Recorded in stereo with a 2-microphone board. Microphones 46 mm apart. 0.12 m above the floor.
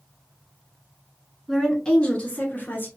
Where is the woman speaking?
10° left (ahead or behind), 1.1 m; by 2.9 s 40° left (ahead or behind), 1.4 m.